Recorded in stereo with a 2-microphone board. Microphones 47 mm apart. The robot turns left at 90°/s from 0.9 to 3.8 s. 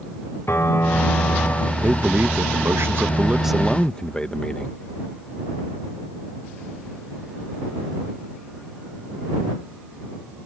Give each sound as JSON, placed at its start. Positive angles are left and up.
{"t": 0.5, "sound": "a piano", "azimuth_deg": 110}
{"t": 1.8, "sound": "a man speaking", "azimuth_deg": -25}